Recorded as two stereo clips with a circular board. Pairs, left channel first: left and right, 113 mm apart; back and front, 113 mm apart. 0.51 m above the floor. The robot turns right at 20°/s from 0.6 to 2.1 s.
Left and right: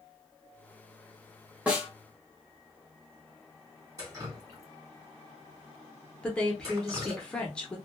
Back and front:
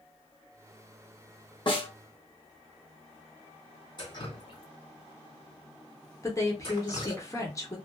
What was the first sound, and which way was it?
A snare drum, 165° right.